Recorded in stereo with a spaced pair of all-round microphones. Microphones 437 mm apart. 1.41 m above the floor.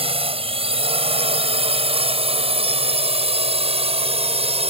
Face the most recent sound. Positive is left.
turn(degrees=-15)  # may be behind; listen again after turning